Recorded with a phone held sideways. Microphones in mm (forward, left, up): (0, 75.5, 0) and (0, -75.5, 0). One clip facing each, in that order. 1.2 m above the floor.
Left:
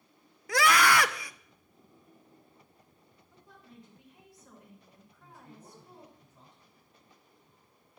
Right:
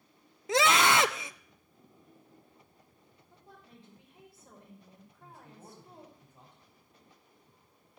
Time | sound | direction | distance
0.5 | a scream | 25° right (ahead or behind) | 0.6 m
3.3 | a woman speaking | 25° right (ahead or behind) | 4.5 m
5.2 | a man speaking | 55° right (ahead or behind) | 6 m